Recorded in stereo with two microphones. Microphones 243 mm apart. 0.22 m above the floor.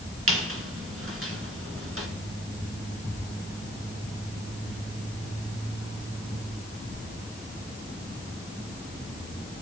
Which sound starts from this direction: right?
A squeak, at 0.3 s.